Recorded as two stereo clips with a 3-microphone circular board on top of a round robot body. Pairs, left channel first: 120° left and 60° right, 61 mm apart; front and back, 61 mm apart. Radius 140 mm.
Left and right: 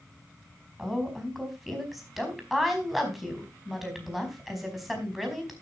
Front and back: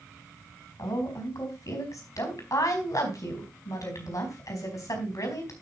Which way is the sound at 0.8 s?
25° left.